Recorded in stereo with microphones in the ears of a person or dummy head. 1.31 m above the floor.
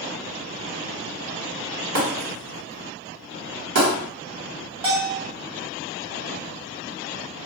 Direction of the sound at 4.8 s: 30° right (ahead or behind).